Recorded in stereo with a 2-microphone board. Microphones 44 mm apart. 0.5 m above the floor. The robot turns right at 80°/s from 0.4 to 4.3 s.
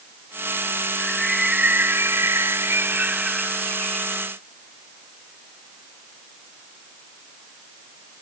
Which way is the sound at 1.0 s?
160° left.